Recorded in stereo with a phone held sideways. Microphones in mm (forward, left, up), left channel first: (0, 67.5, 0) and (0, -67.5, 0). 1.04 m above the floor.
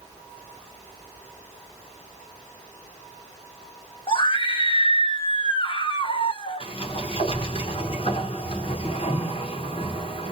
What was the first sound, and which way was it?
A scream, 40° left (ahead or behind).